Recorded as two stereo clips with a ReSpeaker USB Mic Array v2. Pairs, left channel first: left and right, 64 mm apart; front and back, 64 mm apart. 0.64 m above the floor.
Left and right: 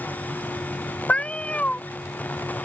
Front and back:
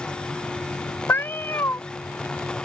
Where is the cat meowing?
25° left.